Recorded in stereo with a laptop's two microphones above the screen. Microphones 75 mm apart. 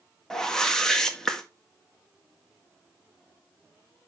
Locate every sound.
0.3 s a whoosh: 10° left (ahead or behind), 1.5 m